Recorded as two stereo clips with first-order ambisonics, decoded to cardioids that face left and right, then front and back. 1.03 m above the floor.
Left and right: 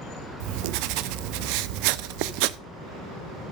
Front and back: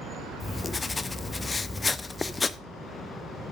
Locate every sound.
0.4 s writing: 80° right, 0.5 m